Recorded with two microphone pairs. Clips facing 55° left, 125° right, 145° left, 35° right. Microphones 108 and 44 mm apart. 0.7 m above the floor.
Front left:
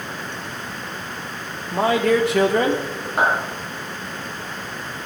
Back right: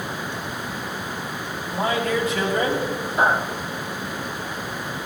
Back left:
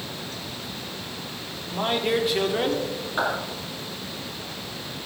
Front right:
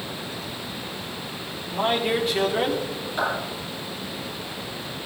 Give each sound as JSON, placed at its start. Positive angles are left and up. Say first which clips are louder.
{"t": 1.7, "sound": "a man speaking", "louder": "front left 5 dB, front right 1 dB", "azimuth_deg": 50, "distance_m": 1.5}
{"t": 3.2, "sound": "a clap", "louder": "even, even", "azimuth_deg": 75, "distance_m": 7.0}